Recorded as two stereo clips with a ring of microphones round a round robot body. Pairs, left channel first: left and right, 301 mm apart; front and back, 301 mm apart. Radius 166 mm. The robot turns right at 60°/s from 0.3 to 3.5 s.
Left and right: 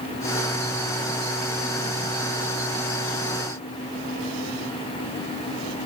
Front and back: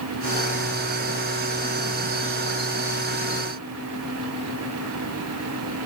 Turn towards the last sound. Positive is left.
No sound to turn to.